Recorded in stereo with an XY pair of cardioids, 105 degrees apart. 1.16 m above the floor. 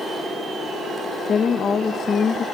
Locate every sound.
1.2 s a woman speaking: 40° left, 0.6 m